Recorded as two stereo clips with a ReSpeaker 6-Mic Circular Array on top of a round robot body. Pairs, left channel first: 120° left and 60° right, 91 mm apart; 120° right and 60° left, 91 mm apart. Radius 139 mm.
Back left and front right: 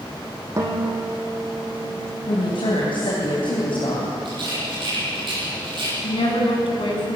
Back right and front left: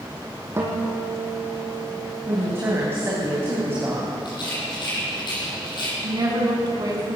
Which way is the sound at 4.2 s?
85° right.